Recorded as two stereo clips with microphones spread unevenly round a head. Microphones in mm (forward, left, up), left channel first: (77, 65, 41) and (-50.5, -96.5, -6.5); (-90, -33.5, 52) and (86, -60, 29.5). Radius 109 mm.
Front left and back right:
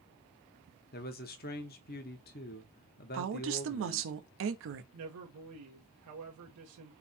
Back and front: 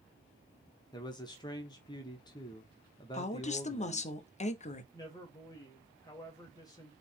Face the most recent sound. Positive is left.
turn(degrees=-120)